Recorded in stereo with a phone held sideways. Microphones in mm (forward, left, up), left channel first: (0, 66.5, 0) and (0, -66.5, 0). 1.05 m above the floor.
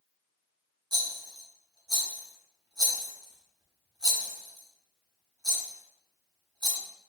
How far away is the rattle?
About 0.7 m.